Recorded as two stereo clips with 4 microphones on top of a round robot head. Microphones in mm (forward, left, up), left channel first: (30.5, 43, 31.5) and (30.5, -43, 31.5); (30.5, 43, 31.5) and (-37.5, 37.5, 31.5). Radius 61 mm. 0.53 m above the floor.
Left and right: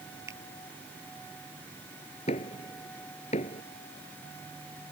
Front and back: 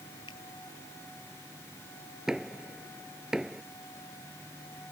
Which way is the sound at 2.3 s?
105° left.